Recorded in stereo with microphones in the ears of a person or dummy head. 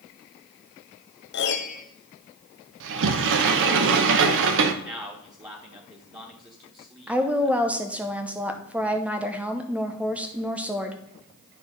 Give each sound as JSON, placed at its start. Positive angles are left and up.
{"t": 1.3, "sound": "a piano", "side_deg": 50, "distance_m": 0.9}
{"t": 2.8, "sound": "a sliding door", "side_deg": -65, "distance_m": 0.8}
{"t": 4.8, "sound": "a man speaking", "side_deg": -20, "distance_m": 1.4}
{"t": 7.1, "sound": "a woman speaking", "side_deg": -5, "distance_m": 0.8}